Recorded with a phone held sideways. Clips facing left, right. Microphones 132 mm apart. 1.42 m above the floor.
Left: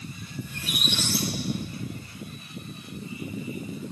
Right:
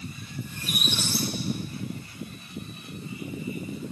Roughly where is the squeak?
Left.